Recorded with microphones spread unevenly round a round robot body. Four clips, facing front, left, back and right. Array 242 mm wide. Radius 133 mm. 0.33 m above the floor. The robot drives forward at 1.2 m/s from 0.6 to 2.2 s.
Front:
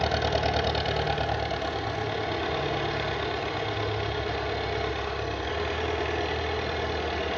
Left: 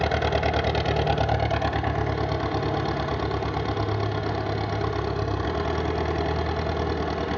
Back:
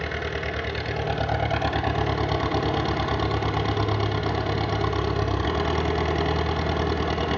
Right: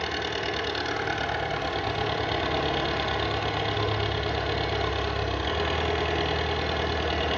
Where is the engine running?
65° left, 1.1 m; by 7.4 s 150° left, 1.8 m.